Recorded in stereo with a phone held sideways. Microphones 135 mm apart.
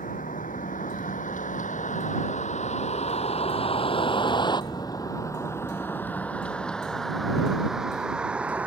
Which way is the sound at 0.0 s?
85° left.